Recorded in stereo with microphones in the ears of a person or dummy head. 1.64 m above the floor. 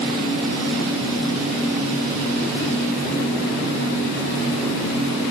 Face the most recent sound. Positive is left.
No sound to turn to.